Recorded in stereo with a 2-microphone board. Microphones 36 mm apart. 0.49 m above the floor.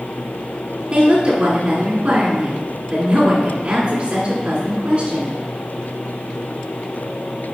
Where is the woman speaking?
35° right (ahead or behind), 1.5 m.